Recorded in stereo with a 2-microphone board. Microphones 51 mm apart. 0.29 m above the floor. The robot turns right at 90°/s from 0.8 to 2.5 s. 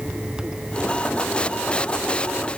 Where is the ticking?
No ticking in this recording.